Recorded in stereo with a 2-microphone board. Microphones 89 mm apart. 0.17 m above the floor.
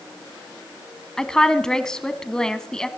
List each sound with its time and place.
1.2 s a woman speaking: 5° left (ahead or behind), 1.0 m